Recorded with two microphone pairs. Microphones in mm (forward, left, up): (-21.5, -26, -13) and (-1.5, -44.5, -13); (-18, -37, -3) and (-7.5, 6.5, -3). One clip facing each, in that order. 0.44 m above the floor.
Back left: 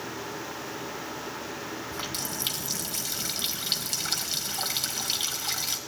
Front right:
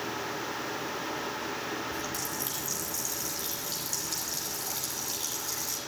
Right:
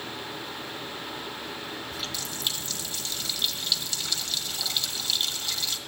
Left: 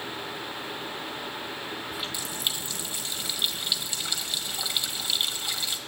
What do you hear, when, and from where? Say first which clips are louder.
1.9 s a running tap: back left 1 dB, left 1 dB; 150° left, 1.4 m